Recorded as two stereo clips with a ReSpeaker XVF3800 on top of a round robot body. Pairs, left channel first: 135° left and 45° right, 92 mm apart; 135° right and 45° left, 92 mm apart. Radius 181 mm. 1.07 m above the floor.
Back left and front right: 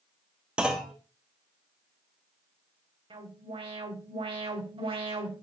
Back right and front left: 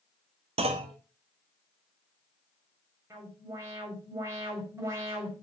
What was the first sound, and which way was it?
A clunk, 35° left.